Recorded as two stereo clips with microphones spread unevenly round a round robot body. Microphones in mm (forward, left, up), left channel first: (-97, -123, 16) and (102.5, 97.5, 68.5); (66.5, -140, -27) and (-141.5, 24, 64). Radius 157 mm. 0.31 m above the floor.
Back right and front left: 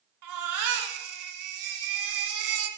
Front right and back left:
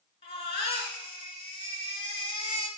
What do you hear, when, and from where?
0.2 s a baby crying: 30° left, 1.7 m